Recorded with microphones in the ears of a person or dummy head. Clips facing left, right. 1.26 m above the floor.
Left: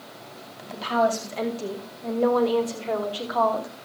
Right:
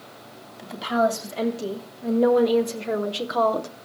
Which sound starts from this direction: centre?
A woman speaking, at 0.6 s.